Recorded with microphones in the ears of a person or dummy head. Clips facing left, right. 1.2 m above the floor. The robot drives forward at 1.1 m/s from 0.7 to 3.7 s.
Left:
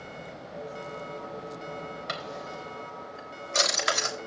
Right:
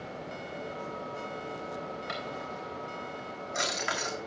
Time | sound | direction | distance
2.1 | a drawer | 70° left (ahead or behind) | 3.5 m